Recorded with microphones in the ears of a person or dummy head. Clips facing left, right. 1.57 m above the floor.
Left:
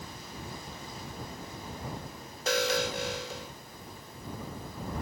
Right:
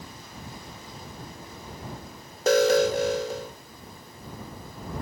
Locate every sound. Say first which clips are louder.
2.5 s an alarm: right 10 dB; 45° right (ahead or behind)